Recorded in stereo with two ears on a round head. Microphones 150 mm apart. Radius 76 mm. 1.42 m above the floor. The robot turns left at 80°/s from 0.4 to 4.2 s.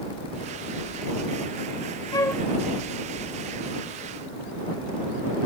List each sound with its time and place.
2.1 s a flute: 25° left (ahead or behind); by 2.4 s centre (ahead or behind)